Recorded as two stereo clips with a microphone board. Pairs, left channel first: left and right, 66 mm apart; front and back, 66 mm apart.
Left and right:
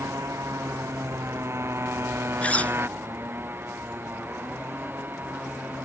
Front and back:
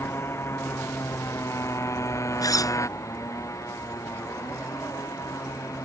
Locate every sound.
0.0 s a motorcycle: 50° right; by 5.8 s 30° right
2.4 s a zipper: 20° left